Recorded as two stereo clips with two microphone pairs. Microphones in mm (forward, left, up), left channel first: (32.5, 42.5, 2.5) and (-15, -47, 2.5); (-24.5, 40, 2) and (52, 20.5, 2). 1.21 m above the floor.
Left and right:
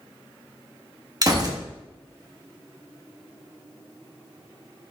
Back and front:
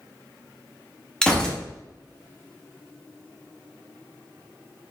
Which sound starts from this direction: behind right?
A gunshot, at 1.2 s.